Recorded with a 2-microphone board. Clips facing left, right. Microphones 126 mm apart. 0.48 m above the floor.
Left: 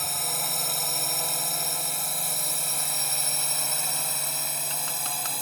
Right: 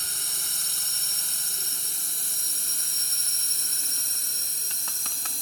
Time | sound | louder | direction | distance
0.0 | a drone | left 11 dB | 60° left (ahead or behind) | ?